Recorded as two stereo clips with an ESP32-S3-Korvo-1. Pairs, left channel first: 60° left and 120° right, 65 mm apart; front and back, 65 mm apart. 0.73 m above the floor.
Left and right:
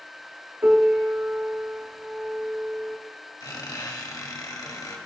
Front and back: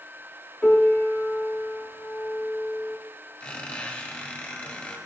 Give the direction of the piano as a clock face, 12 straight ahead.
2 o'clock.